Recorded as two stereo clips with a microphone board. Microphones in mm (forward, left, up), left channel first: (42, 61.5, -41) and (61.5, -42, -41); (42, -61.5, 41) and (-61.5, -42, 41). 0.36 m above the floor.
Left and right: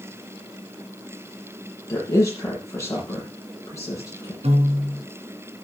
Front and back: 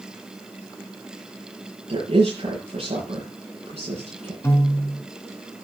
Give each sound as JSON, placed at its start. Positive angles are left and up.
{"t": 1.9, "sound": "a woman speaking", "azimuth_deg": 165, "distance_m": 8.0}
{"t": 4.4, "sound": "a piano", "azimuth_deg": -75, "distance_m": 3.5}